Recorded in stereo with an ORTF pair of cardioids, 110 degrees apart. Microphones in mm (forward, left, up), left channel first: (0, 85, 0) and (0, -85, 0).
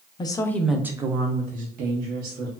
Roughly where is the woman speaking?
Ahead left.